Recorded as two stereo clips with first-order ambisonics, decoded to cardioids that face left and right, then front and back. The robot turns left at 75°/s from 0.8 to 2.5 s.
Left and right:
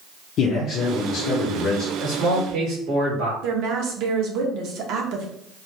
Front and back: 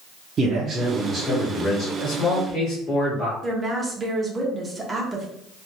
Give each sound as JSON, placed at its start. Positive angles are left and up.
{"t": 0.4, "sound": "a man speaking", "azimuth_deg": 125, "distance_m": 1.0}
{"t": 2.0, "sound": "a man speaking", "azimuth_deg": -20, "distance_m": 2.0}
{"t": 3.4, "sound": "a woman speaking", "azimuth_deg": -105, "distance_m": 1.0}